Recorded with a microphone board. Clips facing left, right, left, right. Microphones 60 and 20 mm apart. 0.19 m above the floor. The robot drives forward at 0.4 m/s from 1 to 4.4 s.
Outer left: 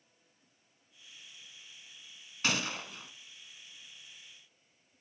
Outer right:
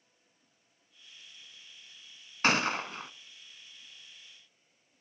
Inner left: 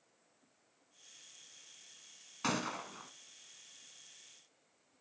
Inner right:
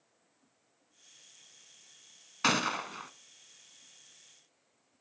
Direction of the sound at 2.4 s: 45° right (ahead or behind).